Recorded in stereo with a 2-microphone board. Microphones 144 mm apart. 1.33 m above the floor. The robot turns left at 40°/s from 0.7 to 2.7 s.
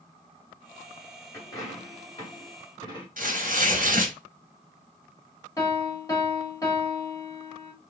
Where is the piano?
20° left (ahead or behind), 1.0 m.